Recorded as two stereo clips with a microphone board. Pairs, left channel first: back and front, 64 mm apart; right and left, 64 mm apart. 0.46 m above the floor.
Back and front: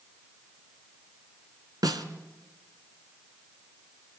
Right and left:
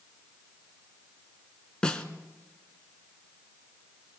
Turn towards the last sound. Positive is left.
turn(degrees=-10)